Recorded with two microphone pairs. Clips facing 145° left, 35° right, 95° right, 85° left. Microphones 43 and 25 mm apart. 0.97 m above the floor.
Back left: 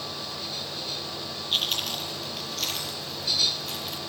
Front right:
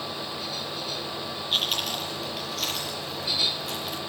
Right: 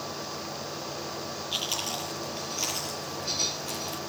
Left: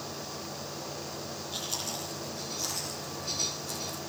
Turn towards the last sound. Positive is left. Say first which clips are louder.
# front right 1 dB, right 5 dB
turn(degrees=-120)